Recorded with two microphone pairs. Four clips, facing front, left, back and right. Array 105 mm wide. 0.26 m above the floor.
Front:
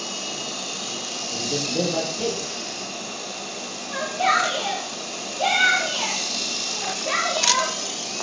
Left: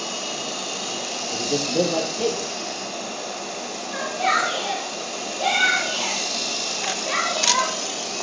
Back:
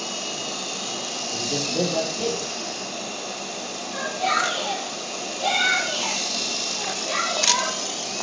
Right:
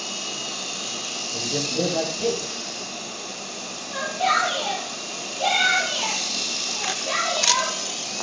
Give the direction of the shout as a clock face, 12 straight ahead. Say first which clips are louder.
Even, front 3 dB; 12 o'clock.